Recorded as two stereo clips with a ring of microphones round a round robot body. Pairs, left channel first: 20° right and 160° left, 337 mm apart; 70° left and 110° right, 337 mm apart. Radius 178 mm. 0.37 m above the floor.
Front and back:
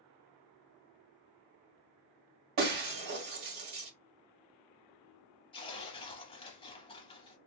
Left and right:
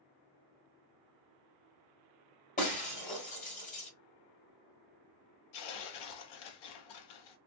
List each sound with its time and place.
2.6 s breaking glass: 135° left, 1.6 m
5.5 s tearing paper: 55° left, 0.7 m